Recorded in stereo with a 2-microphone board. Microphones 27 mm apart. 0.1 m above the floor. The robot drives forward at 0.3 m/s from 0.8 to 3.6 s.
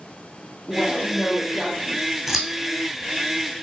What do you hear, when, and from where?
0.7 s a woman speaking: 30° left (ahead or behind), 1.6 m; by 2.2 s 25° left (ahead or behind), 1.8 m
2.3 s scissors: 10° right (ahead or behind), 1.2 m; by 2.5 s 15° right (ahead or behind), 1.1 m